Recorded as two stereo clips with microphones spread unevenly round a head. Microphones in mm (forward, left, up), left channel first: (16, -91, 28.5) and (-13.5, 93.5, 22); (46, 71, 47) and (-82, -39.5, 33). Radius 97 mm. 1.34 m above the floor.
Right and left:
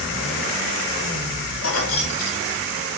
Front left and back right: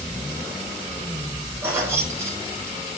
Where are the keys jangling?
60° right, 2.0 m.